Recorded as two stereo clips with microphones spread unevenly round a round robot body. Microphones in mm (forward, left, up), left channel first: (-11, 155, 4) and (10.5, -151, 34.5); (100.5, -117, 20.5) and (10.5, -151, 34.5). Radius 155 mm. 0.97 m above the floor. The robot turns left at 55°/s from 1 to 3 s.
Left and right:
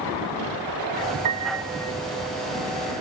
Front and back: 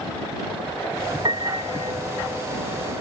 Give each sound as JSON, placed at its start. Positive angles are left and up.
{"t": 1.2, "sound": "a piano", "azimuth_deg": -120}